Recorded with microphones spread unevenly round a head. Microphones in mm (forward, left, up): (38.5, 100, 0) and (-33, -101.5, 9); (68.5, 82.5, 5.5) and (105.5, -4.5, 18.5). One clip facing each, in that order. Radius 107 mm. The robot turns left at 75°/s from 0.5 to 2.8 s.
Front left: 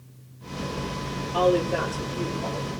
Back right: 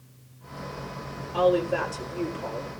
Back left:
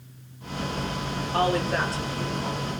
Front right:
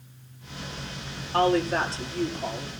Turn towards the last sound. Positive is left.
turn(degrees=-70)